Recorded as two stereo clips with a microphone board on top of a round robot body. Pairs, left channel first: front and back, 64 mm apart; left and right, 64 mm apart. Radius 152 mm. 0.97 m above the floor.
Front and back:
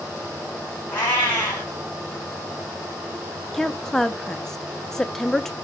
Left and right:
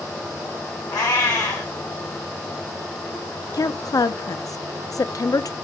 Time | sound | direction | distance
0.9 | a cat meowing | 55° left | 1.0 m
3.5 | a woman speaking | 85° left | 0.6 m